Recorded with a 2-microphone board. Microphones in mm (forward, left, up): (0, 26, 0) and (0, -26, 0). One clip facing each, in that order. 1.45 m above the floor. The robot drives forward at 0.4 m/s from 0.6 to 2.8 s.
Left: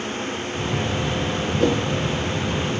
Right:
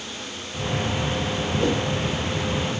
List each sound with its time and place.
1.6 s a whoosh: 30° left (ahead or behind), 2 m